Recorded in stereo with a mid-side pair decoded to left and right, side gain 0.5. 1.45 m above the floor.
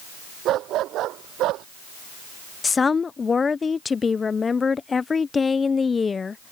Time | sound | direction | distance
0.5 | a dog barking | 65° right | ?
2.6 | a woman speaking | 30° left | ?